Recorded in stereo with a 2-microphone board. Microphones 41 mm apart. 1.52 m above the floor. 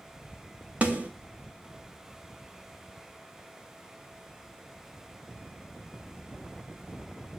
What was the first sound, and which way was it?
A snare drum, 35° right (ahead or behind).